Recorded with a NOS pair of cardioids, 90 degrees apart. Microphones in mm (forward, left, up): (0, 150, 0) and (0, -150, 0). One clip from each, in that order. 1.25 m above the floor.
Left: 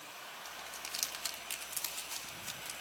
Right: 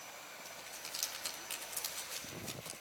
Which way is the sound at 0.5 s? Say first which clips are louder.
Left 4 dB; 25° left.